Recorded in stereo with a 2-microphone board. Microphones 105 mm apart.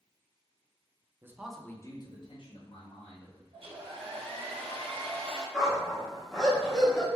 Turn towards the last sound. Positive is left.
turn(degrees=0)  # may be behind; listen again after turning